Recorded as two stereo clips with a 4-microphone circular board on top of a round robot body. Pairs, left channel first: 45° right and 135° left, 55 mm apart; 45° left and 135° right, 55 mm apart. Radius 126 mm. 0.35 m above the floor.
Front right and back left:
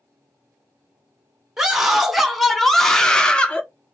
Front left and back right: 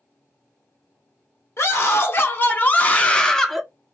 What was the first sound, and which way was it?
A scream, 55° left.